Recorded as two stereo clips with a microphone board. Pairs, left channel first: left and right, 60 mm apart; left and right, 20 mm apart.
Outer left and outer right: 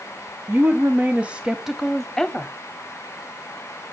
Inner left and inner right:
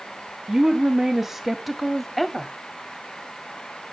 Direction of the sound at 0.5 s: 45° right (ahead or behind).